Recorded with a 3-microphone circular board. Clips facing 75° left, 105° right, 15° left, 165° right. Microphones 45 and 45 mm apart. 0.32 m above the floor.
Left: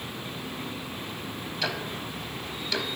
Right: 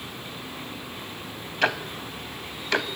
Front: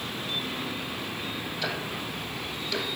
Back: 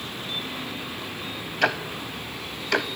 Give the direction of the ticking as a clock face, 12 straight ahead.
5 o'clock.